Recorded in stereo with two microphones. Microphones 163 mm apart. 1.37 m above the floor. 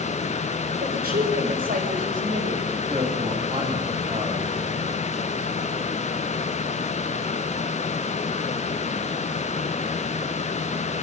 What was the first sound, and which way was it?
A woman speaking, 85° right.